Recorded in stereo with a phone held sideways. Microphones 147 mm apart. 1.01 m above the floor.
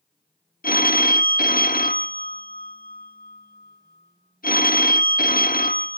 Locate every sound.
0.6 s a phone ringing: 80° left, 0.6 m